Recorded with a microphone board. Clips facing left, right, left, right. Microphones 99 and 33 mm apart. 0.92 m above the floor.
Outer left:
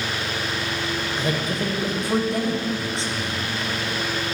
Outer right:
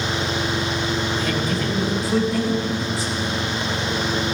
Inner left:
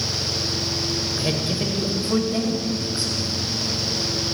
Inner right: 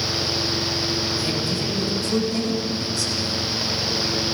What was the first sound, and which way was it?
A man speaking, 25° left (ahead or behind).